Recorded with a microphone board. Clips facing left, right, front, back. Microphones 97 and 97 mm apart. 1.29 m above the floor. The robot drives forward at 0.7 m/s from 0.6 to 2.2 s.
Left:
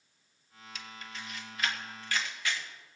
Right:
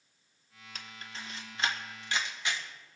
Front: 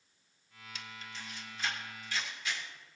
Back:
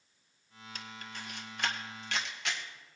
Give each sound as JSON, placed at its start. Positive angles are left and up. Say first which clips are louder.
{"t": 0.8, "sound": "a camera shutter", "louder": "left 1 dB, back 2 dB", "azimuth_deg": -135, "distance_m": 1.1}